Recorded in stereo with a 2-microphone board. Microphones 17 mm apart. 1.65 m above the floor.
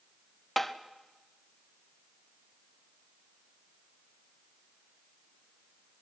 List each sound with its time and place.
0.6 s tapping: 10° left (ahead or behind), 0.8 m